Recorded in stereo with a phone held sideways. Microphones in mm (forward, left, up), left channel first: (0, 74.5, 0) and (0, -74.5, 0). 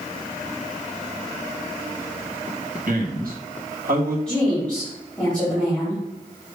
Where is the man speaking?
65° right (ahead or behind), 1.7 m.